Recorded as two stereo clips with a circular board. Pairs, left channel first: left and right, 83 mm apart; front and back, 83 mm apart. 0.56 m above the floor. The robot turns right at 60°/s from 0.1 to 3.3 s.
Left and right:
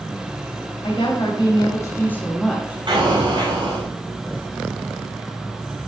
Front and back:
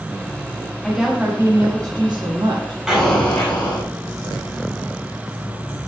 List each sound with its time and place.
0.8 s a woman speaking: 85° left, 6 m; by 2.8 s 160° right, 6 m
2.9 s an explosion: 100° right, 6 m; by 3.9 s 75° right, 6 m